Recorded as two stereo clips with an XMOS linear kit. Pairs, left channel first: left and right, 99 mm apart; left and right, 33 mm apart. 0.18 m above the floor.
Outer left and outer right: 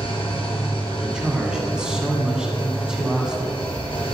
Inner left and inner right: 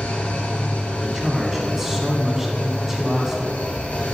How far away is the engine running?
About 1.9 m.